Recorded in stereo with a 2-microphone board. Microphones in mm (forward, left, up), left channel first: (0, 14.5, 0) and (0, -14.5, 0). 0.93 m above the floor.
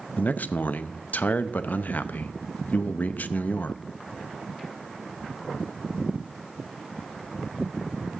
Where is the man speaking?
70° left (ahead or behind), 0.6 m.